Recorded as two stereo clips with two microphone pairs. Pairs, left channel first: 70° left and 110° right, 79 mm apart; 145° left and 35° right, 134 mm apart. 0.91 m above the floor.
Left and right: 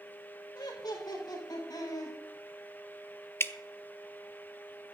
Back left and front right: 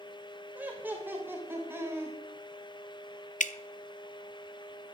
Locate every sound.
0.6 s laughter: 40° left, 4 m; by 2.2 s 35° left, 5.5 m
3.4 s dripping: 130° left, 0.7 m